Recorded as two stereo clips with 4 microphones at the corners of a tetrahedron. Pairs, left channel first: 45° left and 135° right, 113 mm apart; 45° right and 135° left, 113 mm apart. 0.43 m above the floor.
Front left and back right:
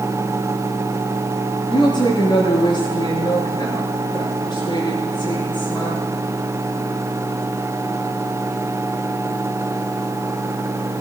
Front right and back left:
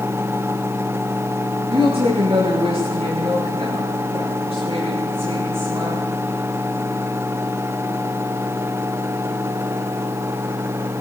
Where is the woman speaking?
95° left, 8 m.